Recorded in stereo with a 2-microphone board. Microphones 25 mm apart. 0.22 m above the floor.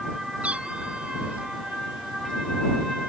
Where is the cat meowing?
60° right (ahead or behind).